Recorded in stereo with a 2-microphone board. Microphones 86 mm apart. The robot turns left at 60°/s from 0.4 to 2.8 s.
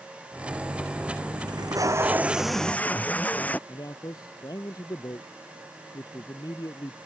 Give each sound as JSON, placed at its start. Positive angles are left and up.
{"t": 1.5, "sound": "tape being pulled", "azimuth_deg": -120}
{"t": 3.7, "sound": "a man speaking", "side_deg": 50}